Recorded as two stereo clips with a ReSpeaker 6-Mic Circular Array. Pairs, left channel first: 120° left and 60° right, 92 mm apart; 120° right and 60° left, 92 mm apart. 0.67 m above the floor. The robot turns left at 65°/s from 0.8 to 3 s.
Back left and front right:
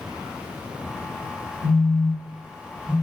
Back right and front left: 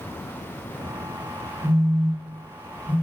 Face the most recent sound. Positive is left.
turn(degrees=-30)